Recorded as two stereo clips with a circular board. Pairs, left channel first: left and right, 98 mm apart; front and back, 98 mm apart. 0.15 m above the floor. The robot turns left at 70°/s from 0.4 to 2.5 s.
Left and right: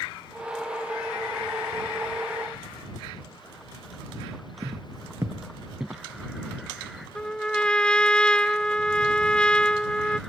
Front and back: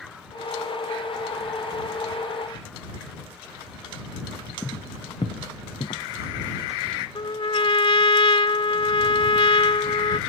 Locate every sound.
4.6 s footsteps: 70° right; by 7.0 s 5° right
7.2 s a trumpet: 10° left